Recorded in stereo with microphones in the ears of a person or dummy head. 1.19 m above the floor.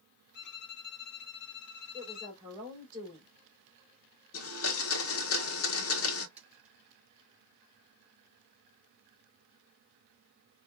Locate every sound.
0.3 s a violin: 60° left (ahead or behind), 0.9 m
1.9 s a woman speaking: 20° right (ahead or behind), 2.5 m
4.3 s a blender: 75° left (ahead or behind), 1.0 m
6.4 s a splash: 5° right (ahead or behind), 1.5 m